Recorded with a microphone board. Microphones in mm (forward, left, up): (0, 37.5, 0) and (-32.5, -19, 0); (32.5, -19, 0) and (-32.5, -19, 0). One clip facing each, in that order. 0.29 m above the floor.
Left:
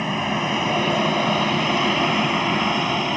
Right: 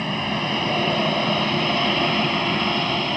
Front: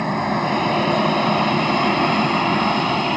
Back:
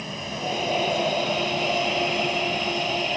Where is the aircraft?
15° right.